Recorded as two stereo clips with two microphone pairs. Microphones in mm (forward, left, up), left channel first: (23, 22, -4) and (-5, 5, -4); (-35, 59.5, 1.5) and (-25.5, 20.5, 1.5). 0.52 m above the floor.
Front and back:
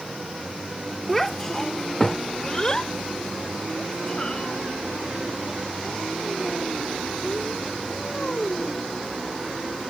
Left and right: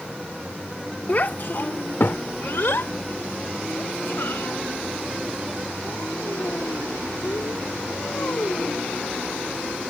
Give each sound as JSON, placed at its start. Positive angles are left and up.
{"t": 1.1, "sound": "a child speaking", "azimuth_deg": 110}